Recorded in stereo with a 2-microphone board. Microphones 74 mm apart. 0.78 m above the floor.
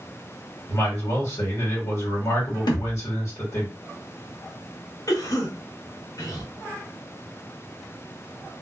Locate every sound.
0.7 s a man speaking: 40° left (ahead or behind), 1.5 m
2.7 s a thud: 70° left (ahead or behind), 0.7 m
5.1 s a cough: 50° left (ahead or behind), 1.3 m